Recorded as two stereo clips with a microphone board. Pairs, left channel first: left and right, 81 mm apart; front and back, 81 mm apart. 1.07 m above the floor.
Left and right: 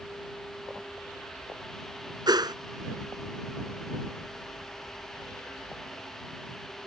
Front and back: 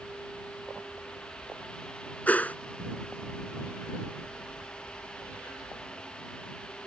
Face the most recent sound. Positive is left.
turn(degrees=-70)